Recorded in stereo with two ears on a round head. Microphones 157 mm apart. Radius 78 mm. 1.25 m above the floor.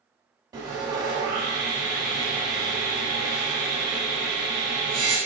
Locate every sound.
0.5 s sawing: 25° right (ahead or behind), 1.4 m